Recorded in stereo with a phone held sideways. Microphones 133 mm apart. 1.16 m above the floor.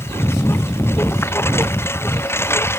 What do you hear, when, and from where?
0.0 s a lawn mower: 15° left (ahead or behind)